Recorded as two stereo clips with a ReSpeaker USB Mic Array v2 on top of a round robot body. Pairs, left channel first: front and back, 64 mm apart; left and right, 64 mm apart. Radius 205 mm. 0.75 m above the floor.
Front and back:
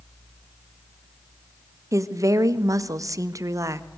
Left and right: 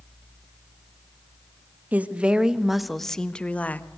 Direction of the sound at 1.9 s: 155° right.